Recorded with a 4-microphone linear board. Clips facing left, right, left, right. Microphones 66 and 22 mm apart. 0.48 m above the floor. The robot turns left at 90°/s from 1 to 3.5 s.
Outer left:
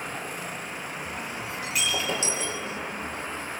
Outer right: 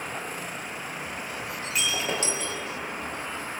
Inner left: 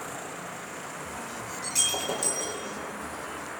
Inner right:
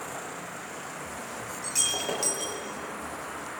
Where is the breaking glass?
15° left, 6 m; by 2.6 s 75° right, 6 m.